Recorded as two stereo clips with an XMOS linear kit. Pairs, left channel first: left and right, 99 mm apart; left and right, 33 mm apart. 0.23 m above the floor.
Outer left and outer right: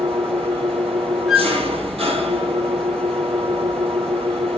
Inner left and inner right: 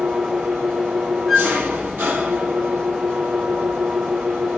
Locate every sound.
0.0 s an engine running: 80° right, 3.5 m
1.3 s a flute: centre (ahead or behind), 1.2 m